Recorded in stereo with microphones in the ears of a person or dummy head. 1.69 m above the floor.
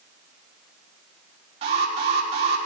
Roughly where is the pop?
I don't hear a pop.